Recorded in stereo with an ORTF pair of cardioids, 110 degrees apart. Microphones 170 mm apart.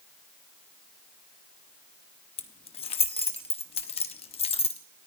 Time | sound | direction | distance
2.4 | keys jangling | 35° left | 1.1 m